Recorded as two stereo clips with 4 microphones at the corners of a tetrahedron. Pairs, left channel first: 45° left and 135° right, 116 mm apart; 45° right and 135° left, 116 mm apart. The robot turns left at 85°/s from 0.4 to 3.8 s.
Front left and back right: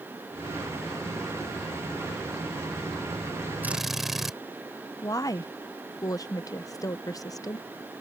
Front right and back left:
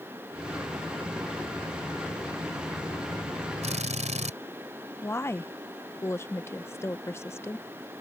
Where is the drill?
150° left; by 4.4 s 135° left.